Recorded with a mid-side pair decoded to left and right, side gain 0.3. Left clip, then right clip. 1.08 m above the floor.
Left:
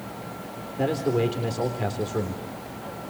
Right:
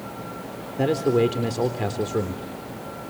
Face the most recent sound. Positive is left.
turn(degrees=-35)